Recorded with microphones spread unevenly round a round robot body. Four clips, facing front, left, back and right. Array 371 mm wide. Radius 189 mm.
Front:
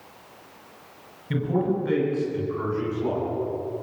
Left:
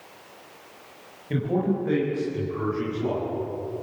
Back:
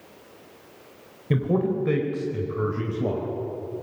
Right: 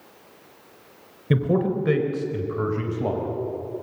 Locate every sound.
1.3 s a man speaking: 110° right, 4 m; by 3.3 s 140° right, 5 m